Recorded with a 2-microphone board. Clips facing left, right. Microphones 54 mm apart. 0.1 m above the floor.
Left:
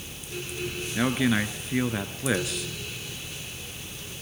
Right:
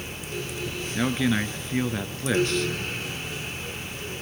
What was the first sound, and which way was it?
A man speaking, 5° left (ahead or behind).